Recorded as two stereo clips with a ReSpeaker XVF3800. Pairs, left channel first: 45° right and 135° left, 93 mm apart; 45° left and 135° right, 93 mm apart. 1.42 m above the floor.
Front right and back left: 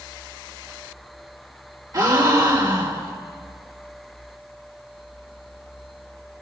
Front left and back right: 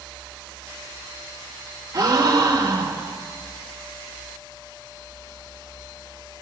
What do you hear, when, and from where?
1.9 s a gasp: straight behind, 2.0 m